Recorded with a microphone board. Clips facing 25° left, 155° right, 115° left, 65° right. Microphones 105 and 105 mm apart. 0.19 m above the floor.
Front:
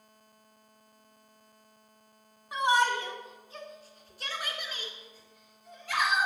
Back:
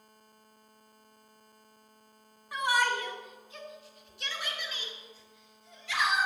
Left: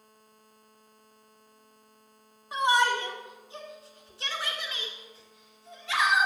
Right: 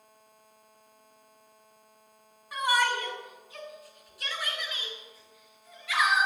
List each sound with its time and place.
2.5 s a shout: 75° left, 1.5 m; by 6.3 s 55° left, 3 m